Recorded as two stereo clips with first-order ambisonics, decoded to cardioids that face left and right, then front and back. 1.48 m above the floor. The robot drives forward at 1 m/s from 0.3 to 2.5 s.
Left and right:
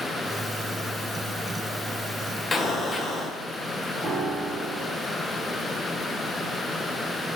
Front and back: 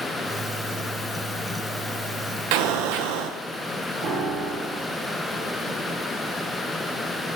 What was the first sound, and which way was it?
An explosion, 165° left.